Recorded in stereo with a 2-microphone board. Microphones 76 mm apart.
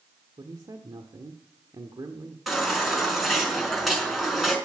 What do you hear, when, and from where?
0.4 s a man speaking: 65° right (ahead or behind), 1.4 m
2.5 s a baby crying: centre (ahead or behind), 5 m